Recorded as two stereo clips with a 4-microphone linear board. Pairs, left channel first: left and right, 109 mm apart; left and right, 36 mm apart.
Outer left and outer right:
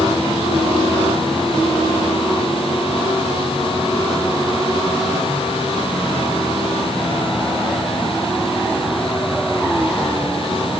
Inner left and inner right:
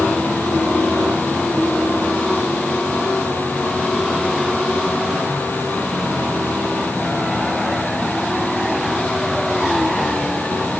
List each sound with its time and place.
Only background noise.